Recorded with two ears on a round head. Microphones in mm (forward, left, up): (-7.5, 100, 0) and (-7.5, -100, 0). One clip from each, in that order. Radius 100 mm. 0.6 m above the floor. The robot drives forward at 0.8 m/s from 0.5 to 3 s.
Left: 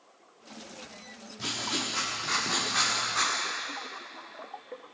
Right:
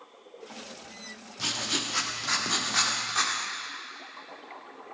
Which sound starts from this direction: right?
Writing, at 1.4 s.